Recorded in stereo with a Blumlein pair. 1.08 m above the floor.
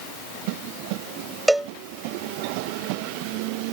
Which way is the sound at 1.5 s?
5° right.